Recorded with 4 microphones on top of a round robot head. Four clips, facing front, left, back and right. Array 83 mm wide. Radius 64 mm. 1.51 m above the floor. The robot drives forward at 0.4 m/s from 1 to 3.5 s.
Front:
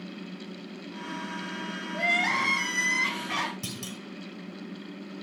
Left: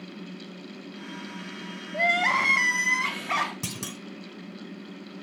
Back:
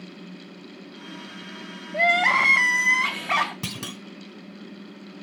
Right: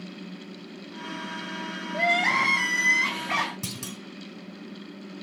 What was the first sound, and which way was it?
Crying, 175° left.